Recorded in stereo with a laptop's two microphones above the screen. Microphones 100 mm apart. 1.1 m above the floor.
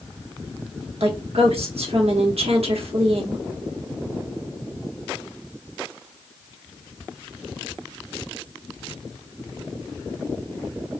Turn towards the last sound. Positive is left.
turn(degrees=-70)  # may be behind; listen again after turning